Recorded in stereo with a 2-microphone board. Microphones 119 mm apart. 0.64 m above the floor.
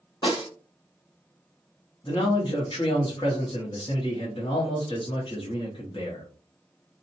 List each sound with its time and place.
0.2 s a snare drum: 45° left (ahead or behind), 1.0 m
2.0 s a man speaking: 45° left (ahead or behind), 0.8 m